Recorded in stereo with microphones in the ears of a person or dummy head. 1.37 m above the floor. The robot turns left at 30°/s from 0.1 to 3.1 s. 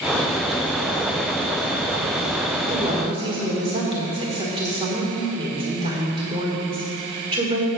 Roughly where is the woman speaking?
Right.